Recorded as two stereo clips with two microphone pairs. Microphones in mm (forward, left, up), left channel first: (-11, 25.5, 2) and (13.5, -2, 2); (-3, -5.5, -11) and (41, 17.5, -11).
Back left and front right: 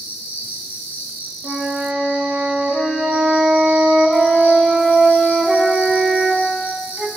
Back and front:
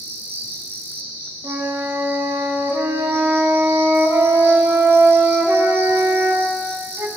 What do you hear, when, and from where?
0.0 s an insect: 25° right, 5.5 m
1.4 s a flute: 20° left, 1.5 m